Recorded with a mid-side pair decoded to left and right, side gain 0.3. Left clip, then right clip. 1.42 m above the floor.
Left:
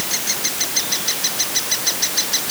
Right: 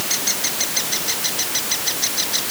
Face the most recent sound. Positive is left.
No sound to turn to.